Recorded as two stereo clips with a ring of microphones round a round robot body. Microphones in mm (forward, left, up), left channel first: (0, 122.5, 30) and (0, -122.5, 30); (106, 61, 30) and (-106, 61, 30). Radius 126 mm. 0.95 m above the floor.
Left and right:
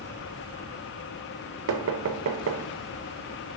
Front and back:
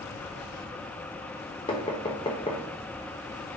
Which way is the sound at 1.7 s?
65° right.